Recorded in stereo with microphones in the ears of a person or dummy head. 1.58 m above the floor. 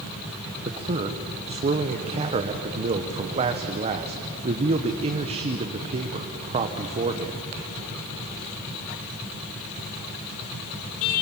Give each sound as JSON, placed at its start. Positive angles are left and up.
{"t": 0.7, "sound": "a man speaking", "side_deg": -30, "distance_m": 1.1}